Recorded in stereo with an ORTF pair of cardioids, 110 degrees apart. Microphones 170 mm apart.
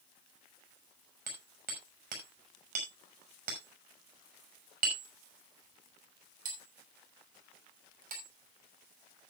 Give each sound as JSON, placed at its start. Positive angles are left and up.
{"t": 1.3, "sound": "hammering", "azimuth_deg": -50, "distance_m": 6.0}